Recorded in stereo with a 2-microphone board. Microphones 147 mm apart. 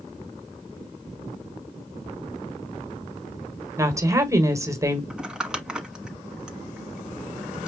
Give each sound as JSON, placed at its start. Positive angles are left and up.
{"t": 3.8, "sound": "a woman speaking", "side_deg": -20, "distance_m": 1.5}
{"t": 5.1, "sound": "crumpling", "side_deg": -5, "distance_m": 1.4}